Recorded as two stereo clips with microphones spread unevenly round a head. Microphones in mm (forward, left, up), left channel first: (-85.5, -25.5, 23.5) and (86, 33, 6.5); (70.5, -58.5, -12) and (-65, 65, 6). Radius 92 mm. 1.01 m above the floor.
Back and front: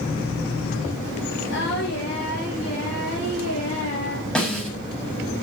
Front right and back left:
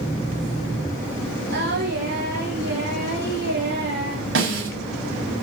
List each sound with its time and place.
1.5 s singing: 170° left, 9 m
4.3 s a snare drum: 115° left, 7 m